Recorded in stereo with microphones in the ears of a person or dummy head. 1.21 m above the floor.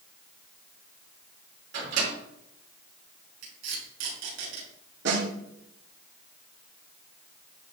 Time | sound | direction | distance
1.7 | a microwave | 75° right (ahead or behind) | 3 m
3.4 | tape being pulled | 60° right (ahead or behind) | 3.5 m
5.0 | a snare drum | 70° right (ahead or behind) | 2.5 m